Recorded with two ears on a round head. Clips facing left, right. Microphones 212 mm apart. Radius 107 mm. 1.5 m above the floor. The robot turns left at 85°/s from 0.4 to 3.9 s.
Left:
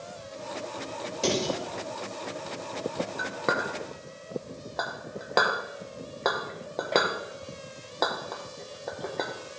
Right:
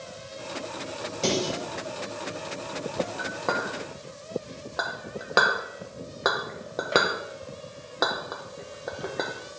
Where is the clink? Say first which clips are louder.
Even; 45° left (ahead or behind), 0.8 m; by 9.3 s 10° right (ahead or behind), 0.8 m.